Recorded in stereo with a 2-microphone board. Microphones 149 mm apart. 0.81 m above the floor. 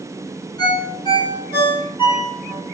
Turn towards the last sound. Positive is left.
turn(degrees=30)  # may be behind; listen again after turning